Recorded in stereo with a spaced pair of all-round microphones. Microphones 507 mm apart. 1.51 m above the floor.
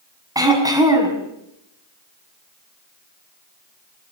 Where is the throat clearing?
5° right (ahead or behind), 5.5 m.